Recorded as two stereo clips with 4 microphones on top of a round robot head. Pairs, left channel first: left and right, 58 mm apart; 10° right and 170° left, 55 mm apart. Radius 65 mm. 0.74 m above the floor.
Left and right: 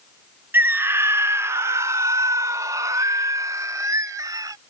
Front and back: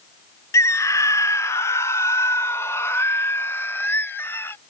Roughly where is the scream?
Ahead right.